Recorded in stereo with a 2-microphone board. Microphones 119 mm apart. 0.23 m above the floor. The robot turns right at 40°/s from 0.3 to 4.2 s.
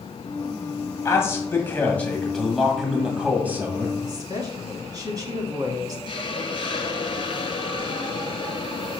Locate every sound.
1.1 s a man speaking: 25° left (ahead or behind), 1.5 m; by 3.9 s 20° right (ahead or behind), 1.5 m
4.0 s a woman speaking: 35° right (ahead or behind), 1.7 m; by 6.0 s 30° right (ahead or behind), 1.7 m
6.1 s a hiss: 45° left (ahead or behind), 0.9 m